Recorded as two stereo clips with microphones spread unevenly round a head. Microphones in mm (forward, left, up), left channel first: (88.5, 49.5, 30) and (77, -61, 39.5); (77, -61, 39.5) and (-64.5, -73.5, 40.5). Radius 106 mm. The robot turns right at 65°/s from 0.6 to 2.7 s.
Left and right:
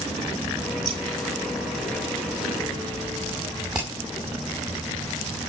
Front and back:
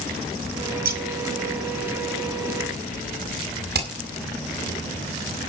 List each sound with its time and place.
0.8 s scissors: 170° right, 5.5 m; by 1.0 s 155° right, 5.5 m
3.7 s hammering: straight behind, 7 m